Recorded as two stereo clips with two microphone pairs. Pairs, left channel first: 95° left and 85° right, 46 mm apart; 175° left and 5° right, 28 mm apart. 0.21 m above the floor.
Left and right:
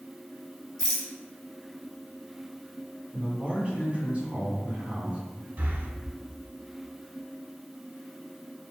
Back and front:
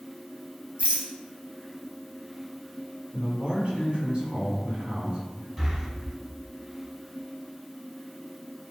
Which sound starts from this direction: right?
Breathing, at 5.6 s.